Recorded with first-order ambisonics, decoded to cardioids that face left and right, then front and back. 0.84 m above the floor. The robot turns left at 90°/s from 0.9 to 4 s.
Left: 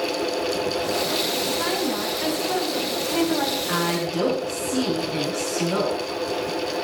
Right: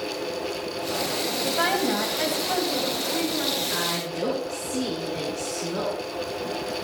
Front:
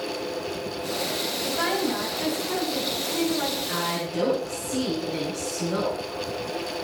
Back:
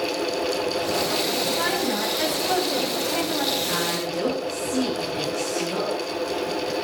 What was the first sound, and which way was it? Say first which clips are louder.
A woman speaking: right 1 dB, back 2 dB; 65° right.